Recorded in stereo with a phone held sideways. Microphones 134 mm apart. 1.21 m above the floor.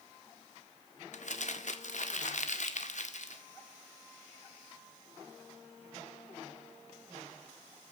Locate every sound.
1.1 s crumpling: 60° left (ahead or behind), 1.7 m